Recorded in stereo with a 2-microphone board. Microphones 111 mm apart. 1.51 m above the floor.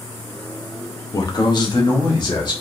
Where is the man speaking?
35° left (ahead or behind), 0.6 m; by 2.6 s 40° left (ahead or behind), 1.4 m.